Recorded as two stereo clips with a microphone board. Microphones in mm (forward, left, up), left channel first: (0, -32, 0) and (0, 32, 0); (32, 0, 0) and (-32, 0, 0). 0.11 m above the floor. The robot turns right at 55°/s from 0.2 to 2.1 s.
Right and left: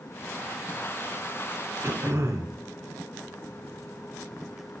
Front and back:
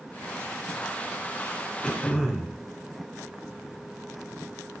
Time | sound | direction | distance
1.8 | throat clearing | 65° left | 1.0 m